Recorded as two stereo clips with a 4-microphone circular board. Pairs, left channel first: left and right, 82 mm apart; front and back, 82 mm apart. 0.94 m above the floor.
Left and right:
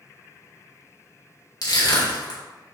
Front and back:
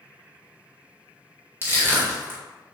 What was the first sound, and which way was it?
Crushing, 120° left.